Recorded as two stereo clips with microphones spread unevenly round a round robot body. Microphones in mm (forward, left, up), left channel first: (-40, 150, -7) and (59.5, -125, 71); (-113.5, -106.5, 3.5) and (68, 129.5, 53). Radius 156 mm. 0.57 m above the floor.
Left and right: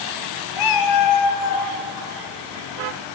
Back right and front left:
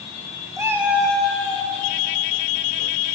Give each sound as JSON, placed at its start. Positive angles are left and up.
{"t": 0.6, "sound": "a cat meowing", "azimuth_deg": 130, "distance_m": 0.6}